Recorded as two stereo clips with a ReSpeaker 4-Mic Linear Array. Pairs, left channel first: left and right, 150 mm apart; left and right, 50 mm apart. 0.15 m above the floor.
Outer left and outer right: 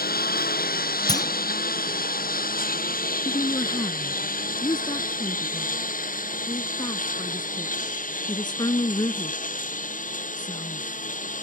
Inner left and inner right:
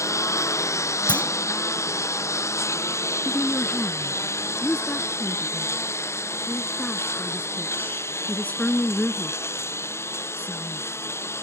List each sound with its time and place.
0.0 s a lawn mower: 75° left (ahead or behind); by 11.4 s 60° left (ahead or behind)
1.1 s a clunk: 25° left (ahead or behind)
3.2 s a woman speaking: 30° left (ahead or behind)